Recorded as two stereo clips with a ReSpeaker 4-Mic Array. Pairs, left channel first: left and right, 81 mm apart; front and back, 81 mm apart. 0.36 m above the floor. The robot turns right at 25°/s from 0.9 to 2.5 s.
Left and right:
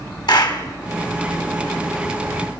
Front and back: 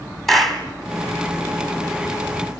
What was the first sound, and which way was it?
A clap, 85° left.